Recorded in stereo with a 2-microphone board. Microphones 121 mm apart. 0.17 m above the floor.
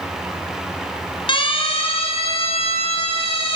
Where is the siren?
45° left (ahead or behind), 3 m; by 3.5 s 50° left (ahead or behind), 4 m.